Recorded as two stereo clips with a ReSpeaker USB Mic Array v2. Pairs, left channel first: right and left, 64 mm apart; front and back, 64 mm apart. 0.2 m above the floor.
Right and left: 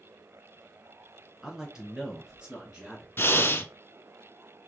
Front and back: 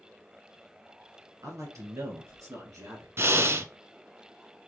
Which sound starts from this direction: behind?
A man speaking, at 1.4 s.